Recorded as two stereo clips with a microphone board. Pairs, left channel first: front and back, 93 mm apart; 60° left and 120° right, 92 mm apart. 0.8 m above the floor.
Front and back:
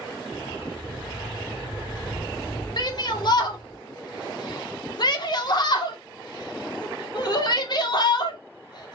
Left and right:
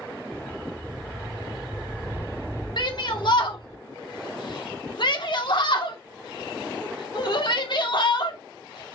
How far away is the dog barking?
About 2.5 m.